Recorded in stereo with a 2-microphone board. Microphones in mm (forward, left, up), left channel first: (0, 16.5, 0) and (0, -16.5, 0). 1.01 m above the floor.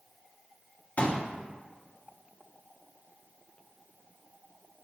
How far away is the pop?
About 1.4 m.